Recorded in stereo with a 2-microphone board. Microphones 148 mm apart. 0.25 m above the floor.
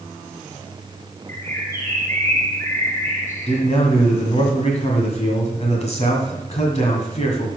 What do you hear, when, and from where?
1.3 s a bird: 15° left (ahead or behind), 3 m
3.5 s a man speaking: 50° left (ahead or behind), 1.8 m